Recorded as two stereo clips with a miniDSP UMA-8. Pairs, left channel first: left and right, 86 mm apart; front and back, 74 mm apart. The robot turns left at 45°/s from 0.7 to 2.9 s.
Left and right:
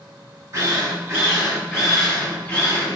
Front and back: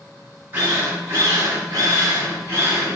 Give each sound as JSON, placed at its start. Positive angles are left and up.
{"t": 0.5, "sound": "a drill", "azimuth_deg": -120, "distance_m": 2.0}